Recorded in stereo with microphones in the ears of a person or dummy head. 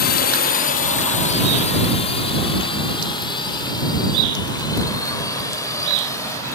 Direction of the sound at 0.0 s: 50° left (ahead or behind).